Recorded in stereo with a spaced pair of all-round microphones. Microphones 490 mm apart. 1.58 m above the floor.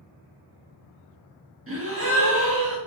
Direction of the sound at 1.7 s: 30° right (ahead or behind).